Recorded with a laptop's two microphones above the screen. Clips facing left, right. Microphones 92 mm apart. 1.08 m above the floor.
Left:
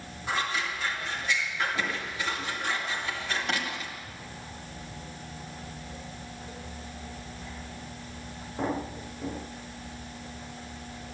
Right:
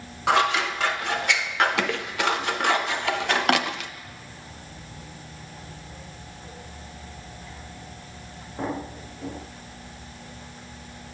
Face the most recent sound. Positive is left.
turn(degrees=-70)  # may be behind; listen again after turning